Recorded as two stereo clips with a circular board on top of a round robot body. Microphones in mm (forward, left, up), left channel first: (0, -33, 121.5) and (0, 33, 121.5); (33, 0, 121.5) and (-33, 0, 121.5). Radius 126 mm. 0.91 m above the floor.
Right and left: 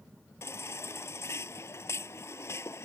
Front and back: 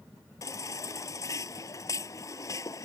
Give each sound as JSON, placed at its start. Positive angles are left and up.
{"t": 0.4, "sound": "a baby crying", "azimuth_deg": -40}